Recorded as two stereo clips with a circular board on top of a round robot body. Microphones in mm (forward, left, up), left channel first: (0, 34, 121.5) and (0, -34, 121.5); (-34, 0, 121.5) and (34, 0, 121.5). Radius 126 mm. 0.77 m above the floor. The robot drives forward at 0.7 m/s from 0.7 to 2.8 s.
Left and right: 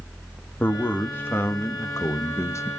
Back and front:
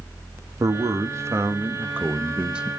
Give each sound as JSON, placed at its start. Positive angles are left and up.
{"t": 0.6, "sound": "a man speaking", "azimuth_deg": 30, "distance_m": 2.0}